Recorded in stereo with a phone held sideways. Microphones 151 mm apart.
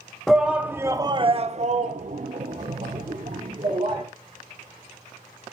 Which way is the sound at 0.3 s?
Centre (ahead or behind).